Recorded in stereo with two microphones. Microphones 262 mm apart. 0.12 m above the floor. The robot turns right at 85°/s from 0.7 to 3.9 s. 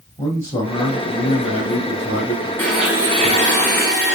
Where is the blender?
165° left, 1.6 m; by 4.2 s 85° right, 1.6 m.